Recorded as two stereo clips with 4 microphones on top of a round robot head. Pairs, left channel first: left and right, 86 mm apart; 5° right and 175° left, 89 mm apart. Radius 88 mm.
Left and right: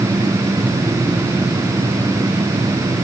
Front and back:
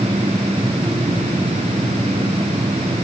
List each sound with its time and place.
Only background noise.